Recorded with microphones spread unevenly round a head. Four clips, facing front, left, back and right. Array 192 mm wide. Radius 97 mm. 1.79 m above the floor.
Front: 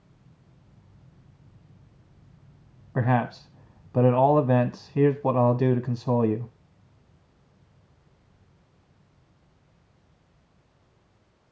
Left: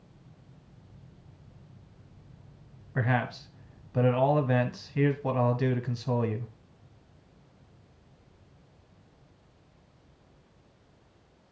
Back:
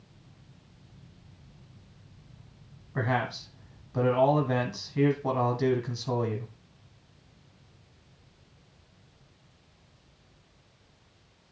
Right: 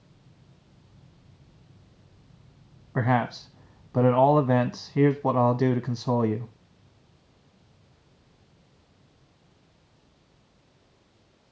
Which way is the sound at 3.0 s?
50° right.